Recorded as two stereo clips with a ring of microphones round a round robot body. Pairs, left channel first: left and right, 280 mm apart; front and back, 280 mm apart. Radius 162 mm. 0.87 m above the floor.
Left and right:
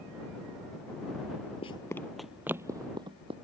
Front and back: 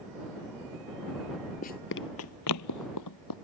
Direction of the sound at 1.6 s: 35° left.